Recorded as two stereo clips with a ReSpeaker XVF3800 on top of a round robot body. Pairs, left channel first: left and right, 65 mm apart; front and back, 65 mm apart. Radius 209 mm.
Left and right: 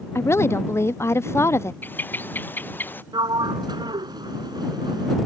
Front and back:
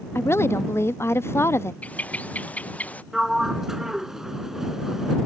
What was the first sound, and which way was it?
A woman speaking, 45° left.